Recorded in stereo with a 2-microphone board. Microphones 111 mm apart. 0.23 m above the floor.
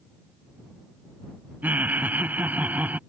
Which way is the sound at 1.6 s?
15° right (ahead or behind).